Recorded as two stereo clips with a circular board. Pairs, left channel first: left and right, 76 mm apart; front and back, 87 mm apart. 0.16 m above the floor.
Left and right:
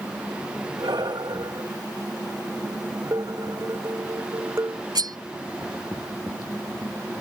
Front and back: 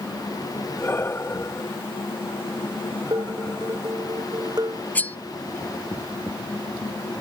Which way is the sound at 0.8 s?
65° right.